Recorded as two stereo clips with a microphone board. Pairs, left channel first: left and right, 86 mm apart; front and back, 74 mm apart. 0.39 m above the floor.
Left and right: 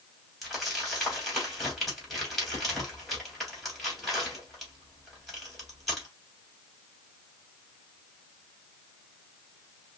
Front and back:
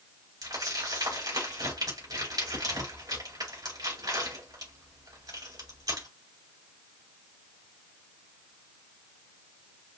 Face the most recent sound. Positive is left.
turn(degrees=180)